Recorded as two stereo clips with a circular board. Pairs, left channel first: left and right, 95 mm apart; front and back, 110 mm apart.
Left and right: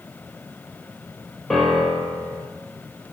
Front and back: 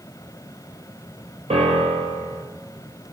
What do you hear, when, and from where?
1.5 s a piano: straight behind, 1.0 m